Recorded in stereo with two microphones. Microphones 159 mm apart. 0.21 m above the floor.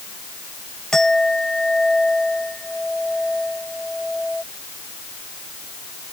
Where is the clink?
5° left (ahead or behind).